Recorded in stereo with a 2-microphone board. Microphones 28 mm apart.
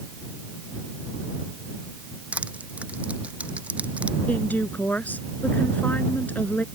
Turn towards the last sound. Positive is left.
turn(degrees=75)  # may be behind; listen again after turning